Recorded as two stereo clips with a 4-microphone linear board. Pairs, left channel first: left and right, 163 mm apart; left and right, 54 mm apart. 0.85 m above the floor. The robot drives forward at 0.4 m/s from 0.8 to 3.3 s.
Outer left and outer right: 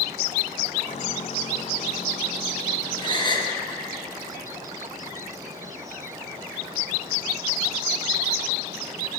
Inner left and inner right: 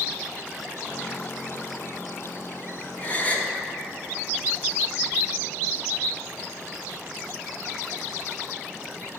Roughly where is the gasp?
Left.